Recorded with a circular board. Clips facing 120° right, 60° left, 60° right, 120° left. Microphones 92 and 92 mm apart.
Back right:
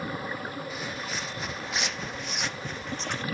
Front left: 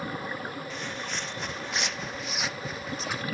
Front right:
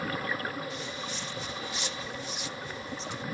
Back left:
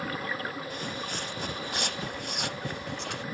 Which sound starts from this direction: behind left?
Footsteps, at 0.7 s.